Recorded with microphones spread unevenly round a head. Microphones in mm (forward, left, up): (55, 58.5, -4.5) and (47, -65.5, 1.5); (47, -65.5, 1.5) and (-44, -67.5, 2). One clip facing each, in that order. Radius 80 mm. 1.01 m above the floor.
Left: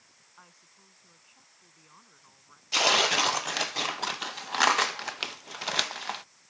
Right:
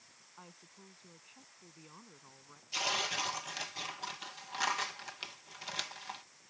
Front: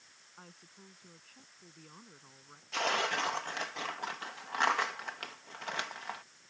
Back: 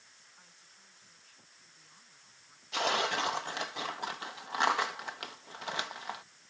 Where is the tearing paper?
100° left.